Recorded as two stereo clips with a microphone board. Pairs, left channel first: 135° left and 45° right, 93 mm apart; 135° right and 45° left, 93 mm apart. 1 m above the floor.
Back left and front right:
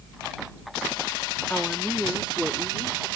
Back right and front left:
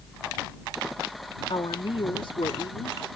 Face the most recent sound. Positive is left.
turn(degrees=-110)